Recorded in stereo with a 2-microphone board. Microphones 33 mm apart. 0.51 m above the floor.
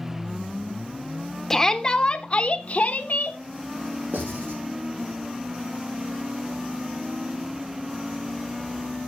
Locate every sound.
1.5 s a shout: 10° left (ahead or behind), 1.0 m; by 3.4 s 50° left (ahead or behind), 1.1 m
4.1 s writing: 80° right, 7.5 m